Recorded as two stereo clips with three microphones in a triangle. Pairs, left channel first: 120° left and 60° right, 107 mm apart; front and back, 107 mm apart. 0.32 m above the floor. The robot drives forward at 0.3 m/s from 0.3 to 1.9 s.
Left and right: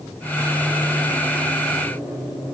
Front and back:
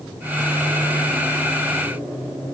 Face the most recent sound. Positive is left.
No sound to turn to.